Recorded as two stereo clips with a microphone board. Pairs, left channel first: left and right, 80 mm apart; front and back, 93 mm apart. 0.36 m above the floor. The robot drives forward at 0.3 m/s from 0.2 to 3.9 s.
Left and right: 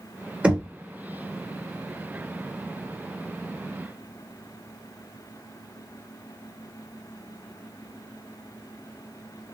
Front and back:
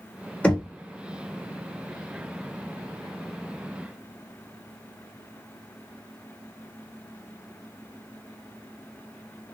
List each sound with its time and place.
0.4 s knocking: 50° right, 1.1 m; by 0.7 s 60° right, 1.1 m